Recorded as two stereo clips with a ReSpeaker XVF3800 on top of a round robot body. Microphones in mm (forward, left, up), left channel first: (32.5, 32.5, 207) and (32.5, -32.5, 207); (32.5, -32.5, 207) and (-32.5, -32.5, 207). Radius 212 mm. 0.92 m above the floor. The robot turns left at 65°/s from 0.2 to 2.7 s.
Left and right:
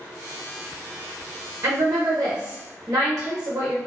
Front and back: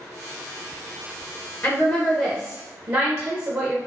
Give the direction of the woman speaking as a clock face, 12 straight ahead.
2 o'clock.